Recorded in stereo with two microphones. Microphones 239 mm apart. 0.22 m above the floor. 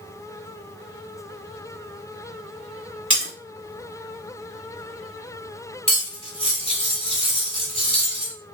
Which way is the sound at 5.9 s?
25° left (ahead or behind).